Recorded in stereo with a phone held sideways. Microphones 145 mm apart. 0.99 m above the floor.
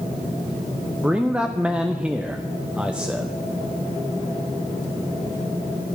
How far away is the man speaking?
About 0.5 m.